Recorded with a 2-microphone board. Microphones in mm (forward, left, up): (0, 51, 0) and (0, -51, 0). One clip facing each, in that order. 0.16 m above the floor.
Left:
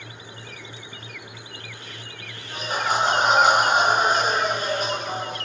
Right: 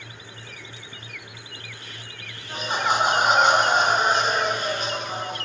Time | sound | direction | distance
2.5 | laughter | 35° right (ahead or behind) | 1.9 m